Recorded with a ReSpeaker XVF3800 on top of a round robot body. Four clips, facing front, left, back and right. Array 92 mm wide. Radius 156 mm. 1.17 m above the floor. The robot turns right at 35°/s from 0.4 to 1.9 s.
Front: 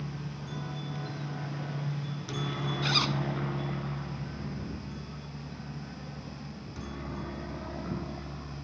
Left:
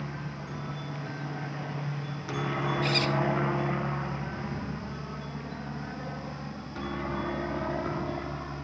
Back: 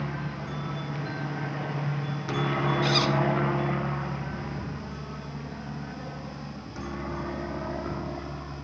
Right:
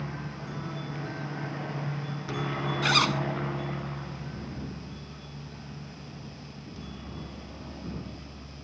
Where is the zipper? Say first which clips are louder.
Right 5 dB, back 3 dB; 90° right.